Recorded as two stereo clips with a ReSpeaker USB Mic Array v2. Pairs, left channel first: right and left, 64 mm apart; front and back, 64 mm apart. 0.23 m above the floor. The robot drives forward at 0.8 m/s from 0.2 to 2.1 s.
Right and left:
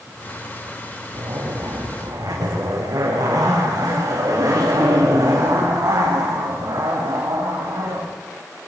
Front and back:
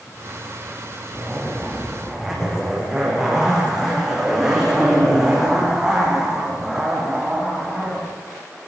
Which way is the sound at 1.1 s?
90° left.